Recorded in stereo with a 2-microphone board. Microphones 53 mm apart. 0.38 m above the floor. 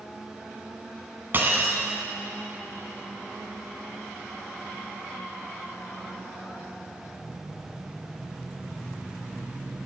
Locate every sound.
1.3 s breaking glass: 40° right (ahead or behind), 1.1 m